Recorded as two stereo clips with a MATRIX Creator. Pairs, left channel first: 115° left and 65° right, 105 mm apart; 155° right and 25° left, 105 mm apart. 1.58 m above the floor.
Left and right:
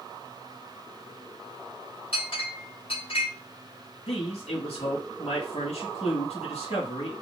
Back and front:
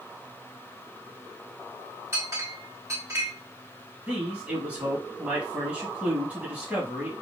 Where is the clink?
85° left, 2.5 m.